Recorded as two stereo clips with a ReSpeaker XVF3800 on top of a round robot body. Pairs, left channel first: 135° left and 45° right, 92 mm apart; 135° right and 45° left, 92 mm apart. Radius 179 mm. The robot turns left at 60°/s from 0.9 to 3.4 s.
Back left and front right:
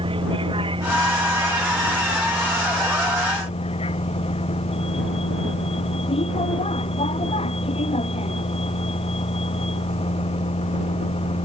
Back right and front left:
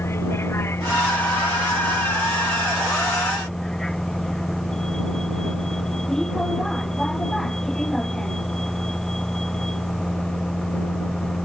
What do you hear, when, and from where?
0.0 s a vehicle: 70° right; by 11.4 s 140° left